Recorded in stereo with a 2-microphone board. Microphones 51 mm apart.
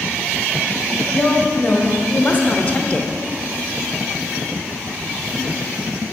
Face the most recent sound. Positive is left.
turn(degrees=20)  # may be behind; listen again after turning